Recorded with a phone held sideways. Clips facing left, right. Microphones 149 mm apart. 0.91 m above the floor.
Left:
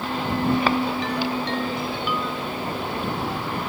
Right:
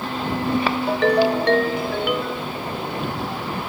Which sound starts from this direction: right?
A ringtone, at 0.9 s.